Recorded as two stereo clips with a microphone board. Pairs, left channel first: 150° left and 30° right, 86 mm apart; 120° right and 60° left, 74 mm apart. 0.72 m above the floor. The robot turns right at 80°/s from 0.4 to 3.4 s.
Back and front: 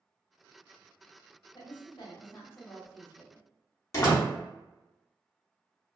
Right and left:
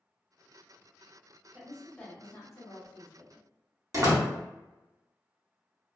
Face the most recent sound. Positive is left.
turn(degrees=100)